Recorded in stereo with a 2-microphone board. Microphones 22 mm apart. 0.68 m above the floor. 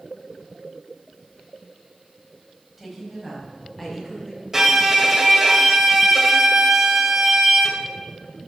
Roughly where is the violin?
Centre.